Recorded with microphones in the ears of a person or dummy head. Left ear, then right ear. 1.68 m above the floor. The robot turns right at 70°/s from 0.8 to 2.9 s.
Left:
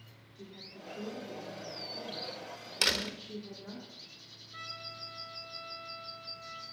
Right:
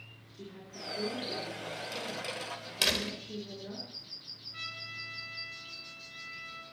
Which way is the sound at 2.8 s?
20° left (ahead or behind).